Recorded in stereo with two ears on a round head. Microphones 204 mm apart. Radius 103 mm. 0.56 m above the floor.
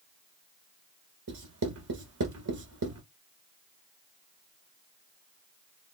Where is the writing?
75° right (ahead or behind), 1.3 m.